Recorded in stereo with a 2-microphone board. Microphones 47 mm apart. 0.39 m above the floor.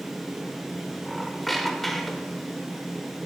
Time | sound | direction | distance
1.1 | a squeak | centre (ahead or behind) | 0.6 m